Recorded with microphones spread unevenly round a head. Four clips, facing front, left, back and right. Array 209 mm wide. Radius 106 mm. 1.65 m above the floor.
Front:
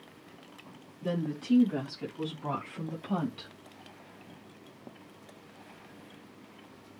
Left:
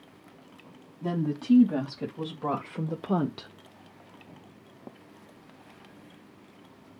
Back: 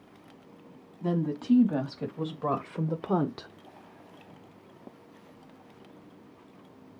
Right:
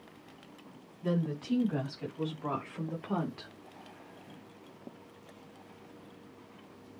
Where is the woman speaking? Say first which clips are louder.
Left 4 dB, back 4 dB; 130° left, 5 m; by 3.5 s 140° left, 1.7 m.